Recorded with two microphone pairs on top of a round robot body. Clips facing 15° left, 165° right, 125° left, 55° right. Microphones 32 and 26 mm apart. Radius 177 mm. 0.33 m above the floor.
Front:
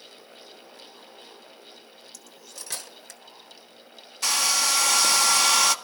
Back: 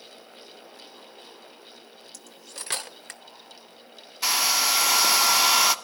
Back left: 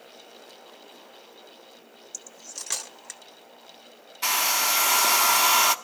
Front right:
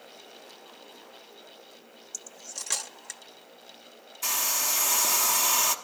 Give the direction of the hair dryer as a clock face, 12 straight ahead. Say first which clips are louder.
Back 1 dB, back left 6 dB; 8 o'clock.